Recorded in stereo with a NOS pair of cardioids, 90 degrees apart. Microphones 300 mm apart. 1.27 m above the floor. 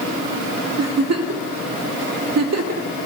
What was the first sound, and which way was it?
A giggle, 60° right.